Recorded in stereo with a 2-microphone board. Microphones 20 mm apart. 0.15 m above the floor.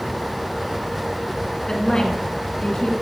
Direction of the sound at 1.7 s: 35° left (ahead or behind).